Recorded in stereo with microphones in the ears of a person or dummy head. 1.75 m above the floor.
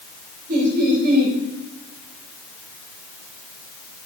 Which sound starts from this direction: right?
Laughter, at 0.5 s.